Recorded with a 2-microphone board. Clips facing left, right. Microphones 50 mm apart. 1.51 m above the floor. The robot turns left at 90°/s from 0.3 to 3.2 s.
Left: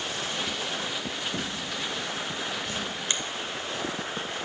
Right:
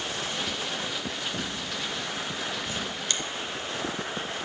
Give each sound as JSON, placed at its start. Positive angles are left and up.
{"t": 1.3, "sound": "a drawer", "side_deg": 65, "distance_m": 3.5}
{"t": 3.1, "sound": "a finger snap", "side_deg": 25, "distance_m": 0.7}